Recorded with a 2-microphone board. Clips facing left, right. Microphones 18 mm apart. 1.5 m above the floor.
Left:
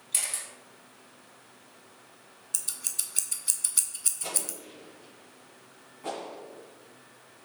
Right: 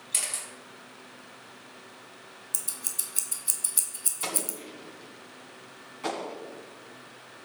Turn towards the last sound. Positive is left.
turn(degrees=-60)  # may be behind; listen again after turning